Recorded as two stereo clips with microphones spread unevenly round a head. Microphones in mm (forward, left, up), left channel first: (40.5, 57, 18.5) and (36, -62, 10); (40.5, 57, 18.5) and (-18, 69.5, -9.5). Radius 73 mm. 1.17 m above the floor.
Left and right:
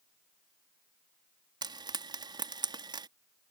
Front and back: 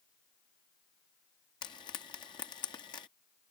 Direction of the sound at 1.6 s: 40° right.